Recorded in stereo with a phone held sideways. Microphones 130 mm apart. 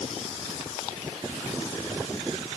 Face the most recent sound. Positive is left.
No sound to turn to.